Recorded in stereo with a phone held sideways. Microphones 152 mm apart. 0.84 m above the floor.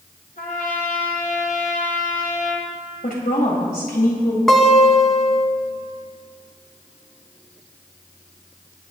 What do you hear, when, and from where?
0.4 s a trumpet: 80° left, 2.5 m
3.0 s a woman speaking: 85° left, 3.5 m
4.5 s a guitar: 5° left (ahead or behind), 1.3 m